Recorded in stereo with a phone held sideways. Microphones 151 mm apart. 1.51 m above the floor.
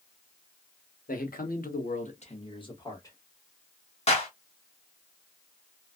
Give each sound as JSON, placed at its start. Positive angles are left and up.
{"t": 1.1, "sound": "a man speaking", "side_deg": 65, "distance_m": 0.9}
{"t": 4.1, "sound": "a clap", "side_deg": 45, "distance_m": 1.0}